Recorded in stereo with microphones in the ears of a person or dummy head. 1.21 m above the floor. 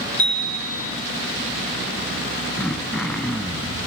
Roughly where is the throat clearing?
Centre.